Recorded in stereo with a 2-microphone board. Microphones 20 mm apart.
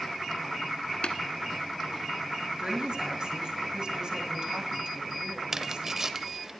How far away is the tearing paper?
About 0.8 m.